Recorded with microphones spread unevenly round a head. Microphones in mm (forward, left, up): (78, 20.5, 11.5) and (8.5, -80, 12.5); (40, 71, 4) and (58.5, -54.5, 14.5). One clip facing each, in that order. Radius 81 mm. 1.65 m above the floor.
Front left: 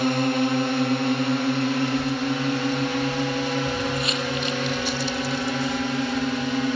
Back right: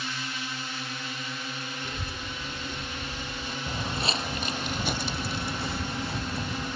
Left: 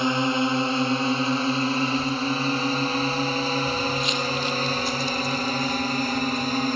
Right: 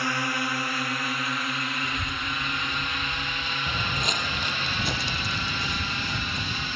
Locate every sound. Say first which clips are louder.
0.0 s a drone: front left 16 dB, left 7 dB; 40° left; by 6.8 s 55° left
1.8 s a child speaking: front left 15 dB, left 9 dB; 130° right
3.7 s footsteps: front left 6 dB, left 5 dB; 70° right; by 6.8 s 105° right